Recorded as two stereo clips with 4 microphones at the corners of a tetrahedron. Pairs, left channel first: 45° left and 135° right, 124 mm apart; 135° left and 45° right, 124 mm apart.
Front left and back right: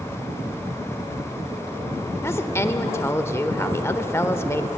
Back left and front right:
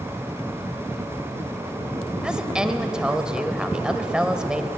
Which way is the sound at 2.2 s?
25° left.